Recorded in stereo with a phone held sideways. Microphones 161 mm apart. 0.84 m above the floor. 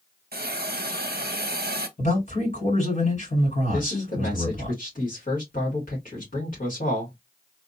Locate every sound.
0.3 s a hiss: 70° right (ahead or behind), 0.6 m
2.0 s a man speaking: 55° left (ahead or behind), 2.5 m
3.7 s a man speaking: 55° left (ahead or behind), 1.8 m